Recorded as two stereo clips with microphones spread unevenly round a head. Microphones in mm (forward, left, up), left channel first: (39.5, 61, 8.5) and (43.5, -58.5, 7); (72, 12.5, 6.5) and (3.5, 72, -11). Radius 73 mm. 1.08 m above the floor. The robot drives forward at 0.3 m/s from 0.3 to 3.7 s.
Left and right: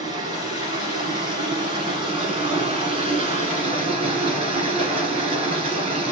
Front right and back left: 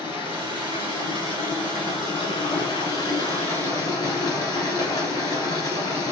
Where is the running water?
40° right, 2 m; by 6.1 s 70° right, 1.5 m.